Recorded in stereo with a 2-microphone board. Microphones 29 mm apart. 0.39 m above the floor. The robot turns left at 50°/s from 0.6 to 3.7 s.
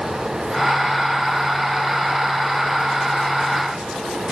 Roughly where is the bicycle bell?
I don't hear a bicycle bell.